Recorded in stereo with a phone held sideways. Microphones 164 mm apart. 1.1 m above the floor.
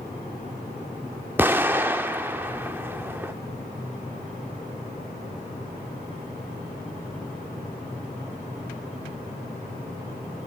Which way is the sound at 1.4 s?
15° right (ahead or behind).